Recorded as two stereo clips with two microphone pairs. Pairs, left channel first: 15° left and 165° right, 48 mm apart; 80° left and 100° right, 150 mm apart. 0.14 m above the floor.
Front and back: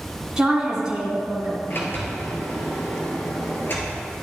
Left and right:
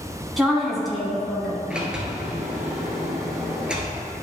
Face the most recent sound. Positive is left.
turn(degrees=-15)